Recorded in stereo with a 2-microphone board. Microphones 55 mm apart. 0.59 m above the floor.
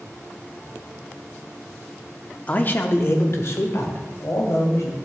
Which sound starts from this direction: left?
A man speaking, at 2.5 s.